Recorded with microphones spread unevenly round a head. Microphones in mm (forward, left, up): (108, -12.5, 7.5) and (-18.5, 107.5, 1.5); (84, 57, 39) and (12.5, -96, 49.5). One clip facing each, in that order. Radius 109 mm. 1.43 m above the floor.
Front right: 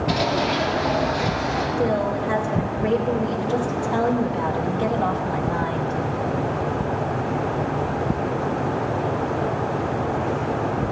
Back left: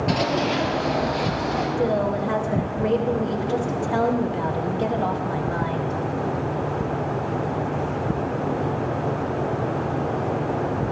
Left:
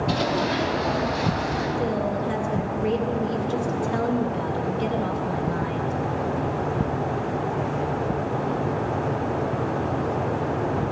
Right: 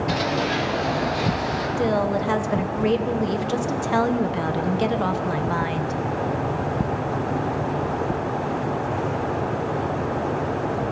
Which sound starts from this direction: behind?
Running footsteps, at 0.1 s.